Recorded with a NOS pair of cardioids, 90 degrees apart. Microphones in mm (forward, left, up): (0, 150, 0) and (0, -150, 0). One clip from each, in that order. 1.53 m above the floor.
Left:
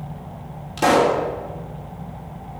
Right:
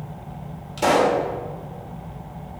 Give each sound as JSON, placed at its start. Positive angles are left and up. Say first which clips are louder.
{"t": 0.8, "sound": "a pop", "louder": "left 2 dB", "azimuth_deg": 25, "distance_m": 2.5}